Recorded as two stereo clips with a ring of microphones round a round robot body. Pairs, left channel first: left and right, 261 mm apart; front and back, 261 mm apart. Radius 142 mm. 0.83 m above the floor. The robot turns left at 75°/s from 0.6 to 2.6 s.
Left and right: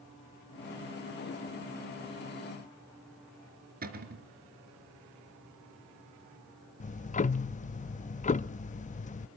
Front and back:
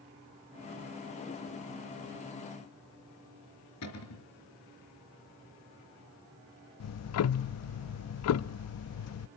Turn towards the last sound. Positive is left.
turn(degrees=25)